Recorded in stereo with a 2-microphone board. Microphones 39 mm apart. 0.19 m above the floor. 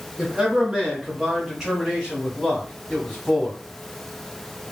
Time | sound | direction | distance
0.2 | a man speaking | 20° right (ahead or behind) | 2 m